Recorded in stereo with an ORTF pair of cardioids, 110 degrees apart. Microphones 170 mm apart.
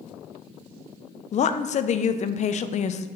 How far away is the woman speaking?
About 0.5 m.